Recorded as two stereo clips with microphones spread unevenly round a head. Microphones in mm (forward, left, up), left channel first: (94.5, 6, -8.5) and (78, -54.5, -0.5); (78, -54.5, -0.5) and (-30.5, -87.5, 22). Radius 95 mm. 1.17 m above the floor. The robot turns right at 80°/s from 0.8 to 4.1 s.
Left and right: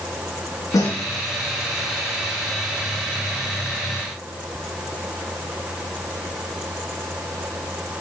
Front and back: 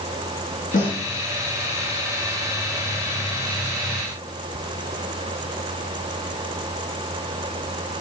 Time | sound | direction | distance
0.7 | a snare drum | 60° left | 4.5 m